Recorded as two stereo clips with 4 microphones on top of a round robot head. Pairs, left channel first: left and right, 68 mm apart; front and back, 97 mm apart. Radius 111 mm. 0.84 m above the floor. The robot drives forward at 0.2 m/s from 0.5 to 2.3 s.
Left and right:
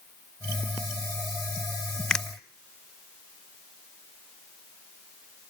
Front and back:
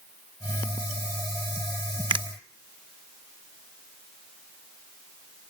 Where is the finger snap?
170° left, 1.2 m.